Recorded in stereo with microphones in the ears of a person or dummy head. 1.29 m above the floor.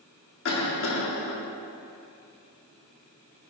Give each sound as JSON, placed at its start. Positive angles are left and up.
{"t": 0.5, "sound": "a cough", "side_deg": 70, "distance_m": 1.4}